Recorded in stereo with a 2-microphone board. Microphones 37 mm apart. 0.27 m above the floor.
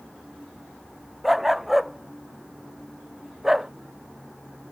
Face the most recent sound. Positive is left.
turn(degrees=-10)  # may be behind; listen again after turning